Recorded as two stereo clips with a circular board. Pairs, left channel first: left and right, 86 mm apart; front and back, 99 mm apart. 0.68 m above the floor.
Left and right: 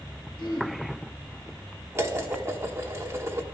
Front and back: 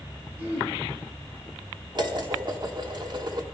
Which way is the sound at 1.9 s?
145° right.